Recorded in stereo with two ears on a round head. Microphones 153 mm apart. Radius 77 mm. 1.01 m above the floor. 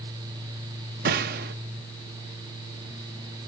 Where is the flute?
No flute in this recording.